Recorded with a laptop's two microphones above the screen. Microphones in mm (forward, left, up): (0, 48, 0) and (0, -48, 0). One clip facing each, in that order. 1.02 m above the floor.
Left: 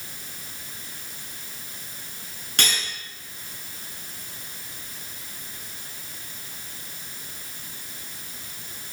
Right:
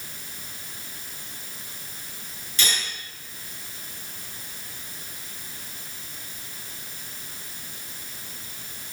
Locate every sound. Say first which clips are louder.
2.6 s cutlery clinking: left 1 dB; 70° left (ahead or behind), 8 m